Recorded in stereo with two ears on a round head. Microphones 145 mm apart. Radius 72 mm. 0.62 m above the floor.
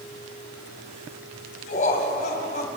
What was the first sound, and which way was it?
Laughter, 50° left (ahead or behind).